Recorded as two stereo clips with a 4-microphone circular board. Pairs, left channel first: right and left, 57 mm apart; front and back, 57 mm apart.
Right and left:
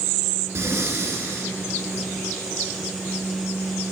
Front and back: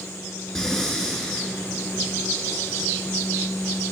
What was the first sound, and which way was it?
Breathing, 75° left.